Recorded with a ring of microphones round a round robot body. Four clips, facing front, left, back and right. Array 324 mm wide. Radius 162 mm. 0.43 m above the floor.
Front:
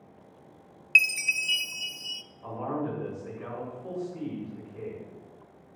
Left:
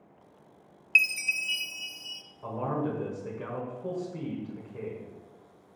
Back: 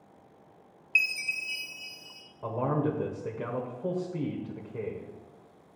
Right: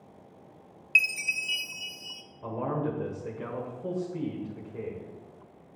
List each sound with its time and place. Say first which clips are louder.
0.9 s a chime: even, front 5 dB; straight ahead, 0.6 m
2.4 s a man speaking: even, back 3 dB; 170° right, 1.5 m